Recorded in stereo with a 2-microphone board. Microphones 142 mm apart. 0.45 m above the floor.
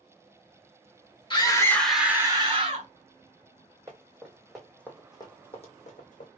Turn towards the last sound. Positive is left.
turn(degrees=65)  # may be behind; listen again after turning